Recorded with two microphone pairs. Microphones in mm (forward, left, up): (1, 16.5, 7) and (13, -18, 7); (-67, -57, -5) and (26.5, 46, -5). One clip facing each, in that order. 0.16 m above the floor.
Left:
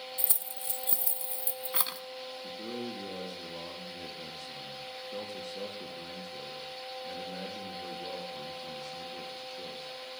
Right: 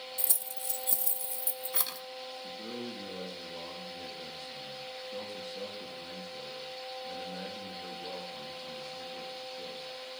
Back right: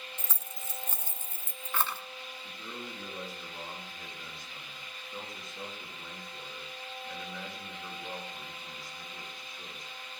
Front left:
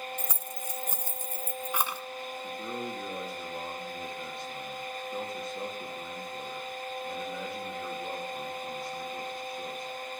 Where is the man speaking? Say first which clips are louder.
Left 3 dB, front left 8 dB; 110° left, 3.5 m.